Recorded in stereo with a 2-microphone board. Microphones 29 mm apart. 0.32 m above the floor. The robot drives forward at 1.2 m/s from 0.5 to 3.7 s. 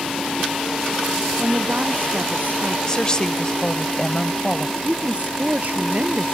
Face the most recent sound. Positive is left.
turn(degrees=-50)  # may be behind; listen again after turning